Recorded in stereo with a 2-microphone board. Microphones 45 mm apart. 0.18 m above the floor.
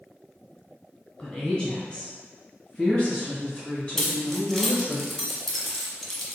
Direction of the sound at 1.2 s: 20° left (ahead or behind).